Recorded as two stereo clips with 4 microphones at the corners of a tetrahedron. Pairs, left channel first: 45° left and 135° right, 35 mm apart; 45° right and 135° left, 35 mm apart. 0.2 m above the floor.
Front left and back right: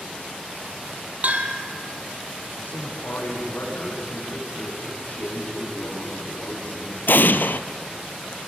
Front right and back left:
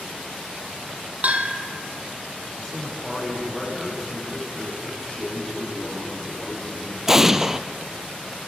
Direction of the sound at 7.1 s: 60° left.